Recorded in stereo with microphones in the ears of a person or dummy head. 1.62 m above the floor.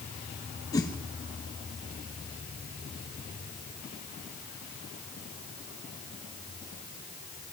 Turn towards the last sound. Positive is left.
turn(degrees=15)  # may be behind; listen again after turning